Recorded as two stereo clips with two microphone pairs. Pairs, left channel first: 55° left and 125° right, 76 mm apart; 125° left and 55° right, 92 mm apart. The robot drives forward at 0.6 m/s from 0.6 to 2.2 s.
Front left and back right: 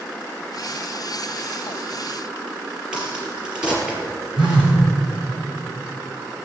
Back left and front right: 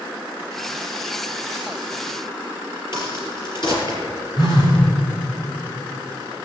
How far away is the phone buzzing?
About 3.5 m.